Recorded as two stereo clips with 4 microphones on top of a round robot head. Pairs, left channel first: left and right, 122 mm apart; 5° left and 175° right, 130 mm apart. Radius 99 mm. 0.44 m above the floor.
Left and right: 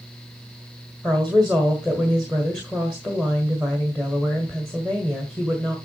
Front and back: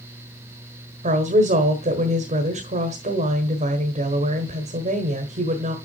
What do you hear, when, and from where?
1.0 s a woman speaking: 175° left, 1.5 m